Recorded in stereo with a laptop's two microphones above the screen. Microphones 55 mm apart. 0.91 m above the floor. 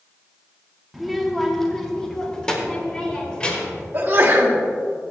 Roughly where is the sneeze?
Right.